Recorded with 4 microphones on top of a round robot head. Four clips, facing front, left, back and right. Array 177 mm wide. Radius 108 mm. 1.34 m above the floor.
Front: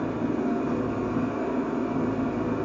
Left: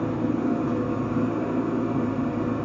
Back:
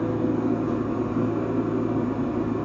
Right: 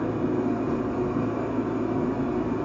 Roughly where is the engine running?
Left.